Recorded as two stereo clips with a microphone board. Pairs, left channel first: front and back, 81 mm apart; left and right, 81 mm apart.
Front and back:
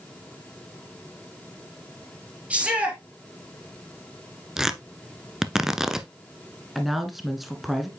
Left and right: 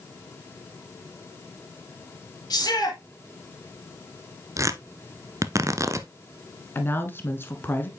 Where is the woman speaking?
90° left, 1.2 m.